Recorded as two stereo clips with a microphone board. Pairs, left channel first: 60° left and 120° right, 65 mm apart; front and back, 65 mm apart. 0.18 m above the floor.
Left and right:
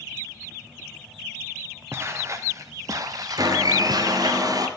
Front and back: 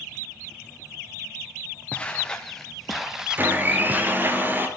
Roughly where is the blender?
Behind right.